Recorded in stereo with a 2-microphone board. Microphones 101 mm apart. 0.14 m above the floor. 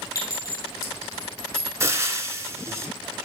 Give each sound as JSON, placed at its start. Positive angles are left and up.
{"t": 0.1, "sound": "a clink", "side_deg": 35, "distance_m": 3.0}
{"t": 1.8, "sound": "frying", "side_deg": -30, "distance_m": 0.8}